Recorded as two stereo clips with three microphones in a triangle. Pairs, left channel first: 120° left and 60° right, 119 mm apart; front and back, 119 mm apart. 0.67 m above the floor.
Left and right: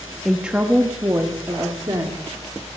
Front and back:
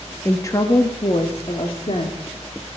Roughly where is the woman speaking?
Ahead left.